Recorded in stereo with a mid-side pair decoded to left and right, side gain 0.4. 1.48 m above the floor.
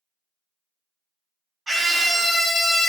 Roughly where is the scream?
Ahead right.